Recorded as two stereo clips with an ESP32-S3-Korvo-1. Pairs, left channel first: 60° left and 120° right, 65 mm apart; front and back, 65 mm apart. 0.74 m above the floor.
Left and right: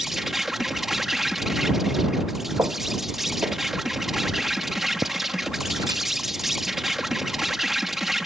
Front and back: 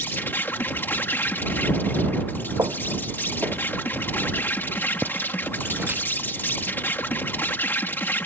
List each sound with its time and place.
0.0 s an insect: 35° right
2.6 s footsteps: 160° right; by 7.0 s 115° right